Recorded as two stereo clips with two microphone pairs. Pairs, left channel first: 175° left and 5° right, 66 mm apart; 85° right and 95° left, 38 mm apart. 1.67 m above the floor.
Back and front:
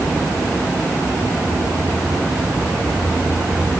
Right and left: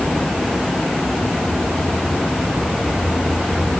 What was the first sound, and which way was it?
Only background noise.